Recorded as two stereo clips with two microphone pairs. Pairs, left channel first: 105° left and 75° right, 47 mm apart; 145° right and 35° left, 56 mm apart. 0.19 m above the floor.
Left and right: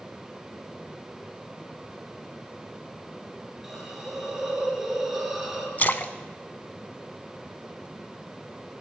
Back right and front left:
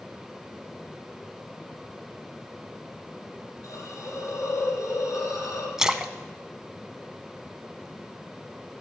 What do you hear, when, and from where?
3.6 s a hiss: 155° right, 3 m
5.8 s a splash: 110° left, 0.7 m